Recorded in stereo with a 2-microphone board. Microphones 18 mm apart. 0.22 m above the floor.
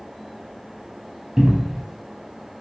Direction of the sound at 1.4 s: 25° right (ahead or behind).